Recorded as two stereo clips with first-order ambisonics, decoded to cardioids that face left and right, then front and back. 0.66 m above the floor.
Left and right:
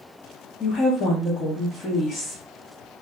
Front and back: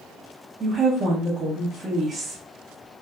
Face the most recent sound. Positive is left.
turn(degrees=130)